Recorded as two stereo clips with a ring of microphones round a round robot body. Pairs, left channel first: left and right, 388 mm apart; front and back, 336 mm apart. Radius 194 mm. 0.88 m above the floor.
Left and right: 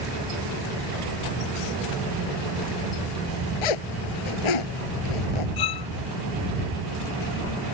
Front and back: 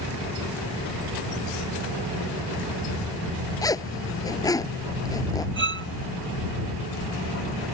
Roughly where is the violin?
Behind left.